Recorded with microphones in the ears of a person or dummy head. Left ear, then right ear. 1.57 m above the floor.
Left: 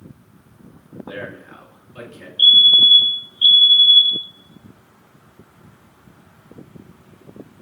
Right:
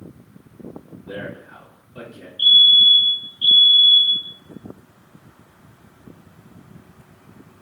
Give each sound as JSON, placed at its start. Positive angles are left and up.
{"t": 1.1, "sound": "a man speaking", "side_deg": 50, "distance_m": 0.8}
{"t": 2.4, "sound": "a fire alarm", "side_deg": 25, "distance_m": 0.5}